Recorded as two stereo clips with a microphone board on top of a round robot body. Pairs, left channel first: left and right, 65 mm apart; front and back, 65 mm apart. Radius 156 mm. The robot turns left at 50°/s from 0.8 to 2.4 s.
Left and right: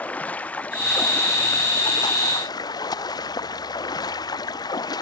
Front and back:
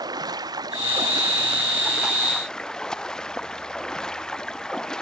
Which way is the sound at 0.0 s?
160° left.